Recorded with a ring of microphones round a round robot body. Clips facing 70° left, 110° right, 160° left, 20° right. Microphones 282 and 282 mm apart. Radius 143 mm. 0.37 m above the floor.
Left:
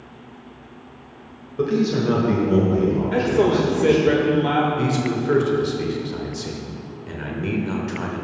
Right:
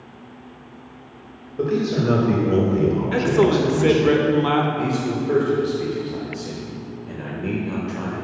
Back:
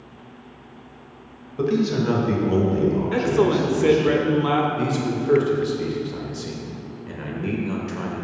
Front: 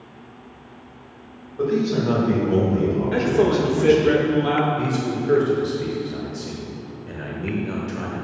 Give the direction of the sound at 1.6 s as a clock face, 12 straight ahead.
7 o'clock.